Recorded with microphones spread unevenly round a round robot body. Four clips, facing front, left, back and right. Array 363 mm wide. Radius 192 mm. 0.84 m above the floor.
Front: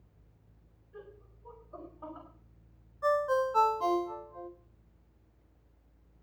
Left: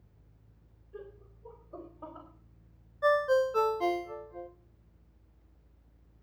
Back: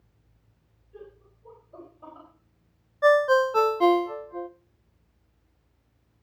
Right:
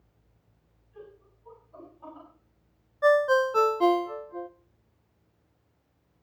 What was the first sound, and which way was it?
Laughter, 95° left.